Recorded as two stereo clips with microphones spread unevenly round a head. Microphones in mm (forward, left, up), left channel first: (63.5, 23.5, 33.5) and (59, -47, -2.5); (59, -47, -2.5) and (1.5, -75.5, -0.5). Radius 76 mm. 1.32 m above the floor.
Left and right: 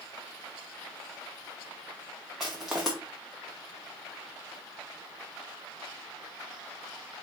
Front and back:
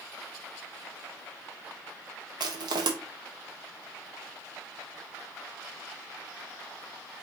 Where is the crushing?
175° left, 0.7 m.